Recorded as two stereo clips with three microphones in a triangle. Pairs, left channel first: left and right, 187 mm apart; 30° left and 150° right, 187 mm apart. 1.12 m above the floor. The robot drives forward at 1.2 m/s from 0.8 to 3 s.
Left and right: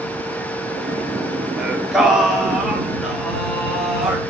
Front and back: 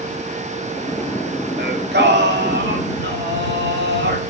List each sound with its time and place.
1.6 s singing: 175° right, 3 m; by 4.2 s straight behind, 5 m